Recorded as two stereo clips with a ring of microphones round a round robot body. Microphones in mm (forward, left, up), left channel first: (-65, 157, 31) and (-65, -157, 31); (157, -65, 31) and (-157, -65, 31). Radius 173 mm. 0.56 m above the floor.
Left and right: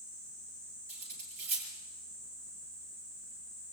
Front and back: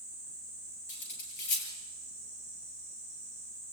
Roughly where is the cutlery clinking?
Ahead right.